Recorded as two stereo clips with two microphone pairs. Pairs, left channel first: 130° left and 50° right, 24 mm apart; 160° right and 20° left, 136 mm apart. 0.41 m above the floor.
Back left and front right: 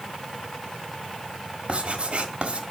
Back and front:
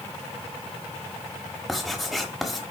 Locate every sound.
1.7 s writing: 70° right, 1.5 m